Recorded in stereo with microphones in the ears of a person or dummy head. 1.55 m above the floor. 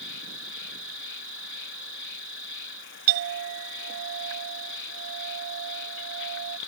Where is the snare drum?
I don't hear a snare drum.